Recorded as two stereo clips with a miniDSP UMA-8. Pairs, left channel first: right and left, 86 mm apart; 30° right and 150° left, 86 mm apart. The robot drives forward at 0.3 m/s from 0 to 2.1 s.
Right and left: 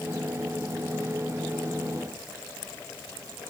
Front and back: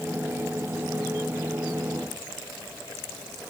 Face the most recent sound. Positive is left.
No sound to turn to.